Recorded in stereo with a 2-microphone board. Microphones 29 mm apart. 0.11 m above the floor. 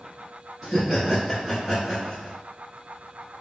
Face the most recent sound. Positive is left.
turn(degrees=-5)  # may be behind; listen again after turning